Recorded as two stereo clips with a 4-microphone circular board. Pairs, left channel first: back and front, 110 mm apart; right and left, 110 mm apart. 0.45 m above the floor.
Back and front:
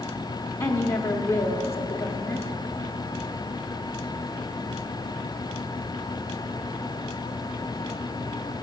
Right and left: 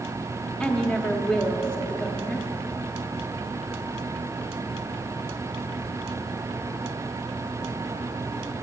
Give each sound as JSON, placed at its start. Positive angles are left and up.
{"t": 0.6, "sound": "a woman speaking", "azimuth_deg": -155, "distance_m": 0.9}